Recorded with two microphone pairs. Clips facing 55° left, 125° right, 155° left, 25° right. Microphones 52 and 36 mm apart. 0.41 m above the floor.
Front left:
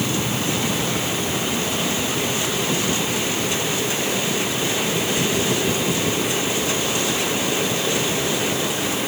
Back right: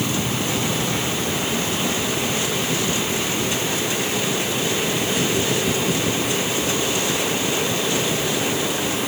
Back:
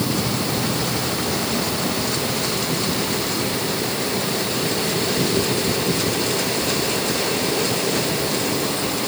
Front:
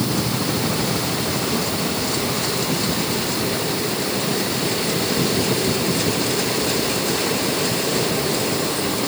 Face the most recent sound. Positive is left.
No sound to turn to.